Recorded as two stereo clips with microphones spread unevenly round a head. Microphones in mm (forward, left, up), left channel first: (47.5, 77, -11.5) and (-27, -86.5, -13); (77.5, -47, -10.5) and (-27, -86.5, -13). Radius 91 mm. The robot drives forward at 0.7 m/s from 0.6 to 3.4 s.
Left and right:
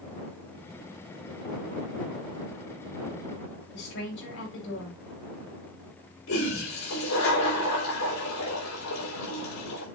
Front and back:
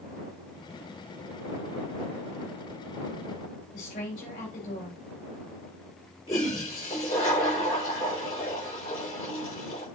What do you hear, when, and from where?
3.7 s a woman speaking: 45° left, 4.5 m
6.3 s a toilet flushing: 80° left, 4 m